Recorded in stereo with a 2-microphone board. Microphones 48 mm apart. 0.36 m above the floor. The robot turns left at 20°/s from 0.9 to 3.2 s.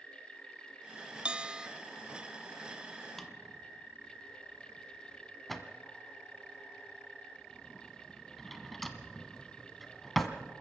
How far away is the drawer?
About 1.5 m.